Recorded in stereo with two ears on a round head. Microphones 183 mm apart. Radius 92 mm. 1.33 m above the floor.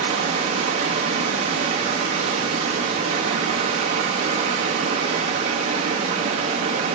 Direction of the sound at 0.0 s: 35° right (ahead or behind).